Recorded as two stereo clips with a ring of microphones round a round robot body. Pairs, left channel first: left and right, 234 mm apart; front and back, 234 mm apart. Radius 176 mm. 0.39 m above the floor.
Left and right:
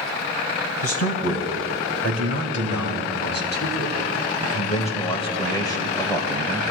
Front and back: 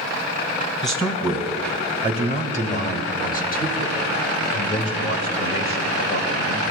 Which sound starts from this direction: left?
A man speaking, at 0.8 s.